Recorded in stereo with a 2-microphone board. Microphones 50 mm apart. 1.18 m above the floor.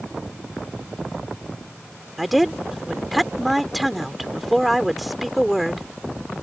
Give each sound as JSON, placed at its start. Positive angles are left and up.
{"t": 2.2, "sound": "a woman speaking", "side_deg": 0}